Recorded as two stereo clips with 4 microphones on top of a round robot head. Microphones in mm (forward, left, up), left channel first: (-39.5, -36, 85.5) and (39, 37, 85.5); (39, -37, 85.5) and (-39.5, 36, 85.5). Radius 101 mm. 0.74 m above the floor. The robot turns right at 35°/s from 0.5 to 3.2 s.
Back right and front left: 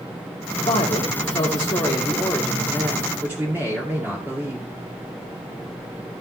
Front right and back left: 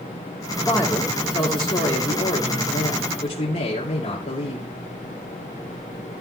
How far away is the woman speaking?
About 2.5 m.